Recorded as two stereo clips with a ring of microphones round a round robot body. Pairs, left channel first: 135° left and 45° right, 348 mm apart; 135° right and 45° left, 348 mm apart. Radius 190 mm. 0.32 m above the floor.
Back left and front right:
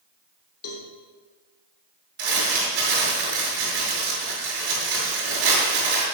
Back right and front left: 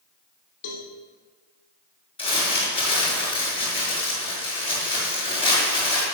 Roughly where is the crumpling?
Ahead right.